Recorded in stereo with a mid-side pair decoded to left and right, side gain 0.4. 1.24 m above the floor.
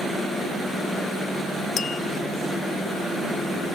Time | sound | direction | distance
1.8 | tapping | 65° left | 0.9 m